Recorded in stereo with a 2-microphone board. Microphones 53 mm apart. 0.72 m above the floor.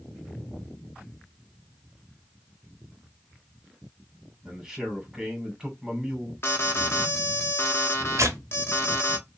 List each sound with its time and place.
4.5 s a man speaking: 5° right (ahead or behind), 3 m
6.4 s an alarm: 50° left (ahead or behind), 1.1 m
8.2 s tearing paper: 75° right (ahead or behind), 1.0 m